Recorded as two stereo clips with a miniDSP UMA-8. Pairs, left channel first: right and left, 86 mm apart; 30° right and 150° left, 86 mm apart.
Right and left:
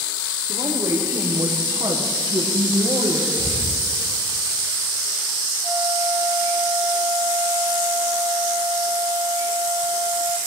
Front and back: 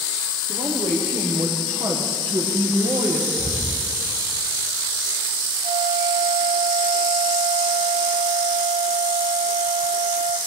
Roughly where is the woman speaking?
Behind left.